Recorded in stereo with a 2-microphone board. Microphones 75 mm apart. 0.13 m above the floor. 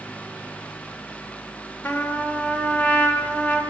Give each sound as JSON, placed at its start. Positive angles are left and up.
{"t": 1.8, "sound": "a trumpet", "side_deg": 20, "distance_m": 1.7}